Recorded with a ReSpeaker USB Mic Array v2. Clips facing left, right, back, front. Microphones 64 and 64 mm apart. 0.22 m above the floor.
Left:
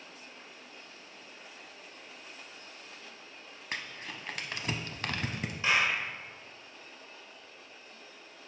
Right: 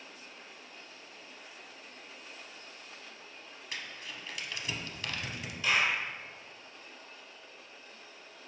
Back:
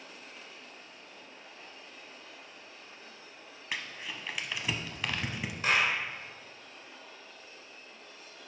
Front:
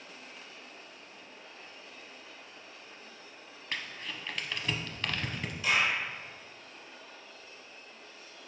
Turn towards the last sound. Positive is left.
turn(degrees=145)